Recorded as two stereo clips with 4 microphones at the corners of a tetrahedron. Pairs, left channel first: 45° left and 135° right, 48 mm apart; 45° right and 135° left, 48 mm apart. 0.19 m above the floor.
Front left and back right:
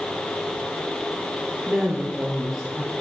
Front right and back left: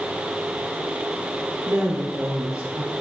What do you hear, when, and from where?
1.7 s a woman speaking: 135° left, 3.5 m